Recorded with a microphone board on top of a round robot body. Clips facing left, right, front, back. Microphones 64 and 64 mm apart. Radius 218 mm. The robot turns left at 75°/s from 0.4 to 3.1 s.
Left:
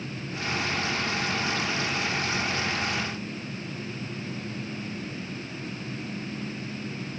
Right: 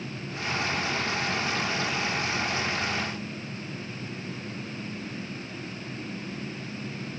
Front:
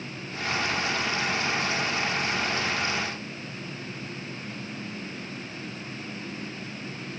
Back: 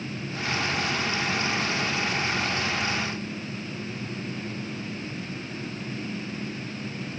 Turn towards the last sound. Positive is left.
No sound to turn to.